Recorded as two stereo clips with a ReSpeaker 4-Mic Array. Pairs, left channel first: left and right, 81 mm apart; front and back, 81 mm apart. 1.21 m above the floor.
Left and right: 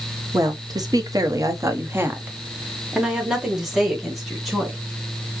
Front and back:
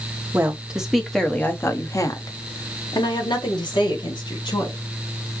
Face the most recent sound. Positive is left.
turn(degrees=5)